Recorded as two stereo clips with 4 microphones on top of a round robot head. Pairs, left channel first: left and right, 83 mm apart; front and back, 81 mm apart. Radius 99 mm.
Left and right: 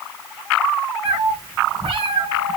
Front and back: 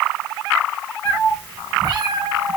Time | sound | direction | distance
1.1 | a cat meowing | 80° right | 1.6 m